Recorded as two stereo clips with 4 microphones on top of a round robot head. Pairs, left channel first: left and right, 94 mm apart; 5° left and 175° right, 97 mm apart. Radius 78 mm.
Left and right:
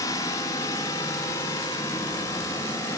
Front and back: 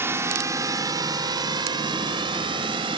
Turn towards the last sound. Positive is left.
turn(degrees=155)